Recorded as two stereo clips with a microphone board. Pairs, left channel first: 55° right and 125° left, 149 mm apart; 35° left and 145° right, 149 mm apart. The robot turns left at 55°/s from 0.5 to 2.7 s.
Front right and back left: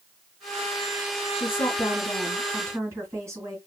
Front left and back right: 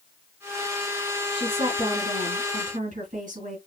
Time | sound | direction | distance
1.3 | a woman speaking | 90° right | 3 m